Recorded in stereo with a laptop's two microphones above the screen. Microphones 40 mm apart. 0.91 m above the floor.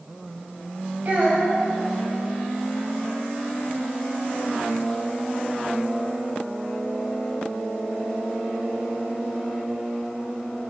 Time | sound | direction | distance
1.1 | a child speaking | 50° right (ahead or behind) | 0.6 m